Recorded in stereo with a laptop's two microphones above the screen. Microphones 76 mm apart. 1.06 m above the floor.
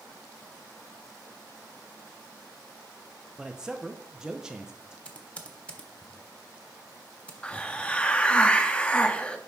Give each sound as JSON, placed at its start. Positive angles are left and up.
{"t": 3.4, "sound": "a man speaking", "side_deg": -10, "distance_m": 0.7}
{"t": 5.0, "sound": "typing on a keyboard", "side_deg": 15, "distance_m": 1.3}
{"t": 7.4, "sound": "a hiss", "side_deg": 15, "distance_m": 0.6}